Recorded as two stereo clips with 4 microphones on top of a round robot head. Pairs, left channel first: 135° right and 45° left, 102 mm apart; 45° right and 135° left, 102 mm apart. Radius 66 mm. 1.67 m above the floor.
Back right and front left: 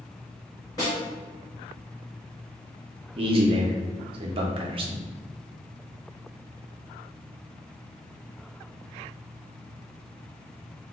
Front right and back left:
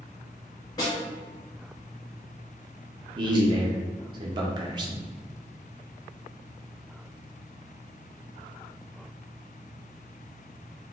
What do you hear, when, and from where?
0.8 s a snare drum: 85° right, 1.0 m
3.2 s a man speaking: 85° left, 0.6 m